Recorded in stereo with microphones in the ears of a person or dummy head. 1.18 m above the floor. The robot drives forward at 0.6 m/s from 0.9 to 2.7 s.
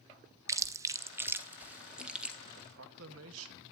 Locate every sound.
0.5 s chewing: 20° right (ahead or behind), 0.5 m; by 2.4 s 5° right (ahead or behind), 1.2 m
2.5 s a man speaking: 75° right (ahead or behind), 1.6 m; by 3.6 s 80° right, 1.6 m